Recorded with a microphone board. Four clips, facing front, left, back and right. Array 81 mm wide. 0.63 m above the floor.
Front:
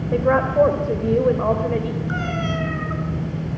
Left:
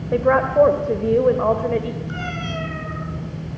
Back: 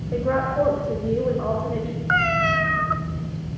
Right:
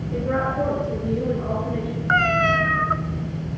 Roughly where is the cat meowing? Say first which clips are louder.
Right 10 dB, back 9 dB; behind right.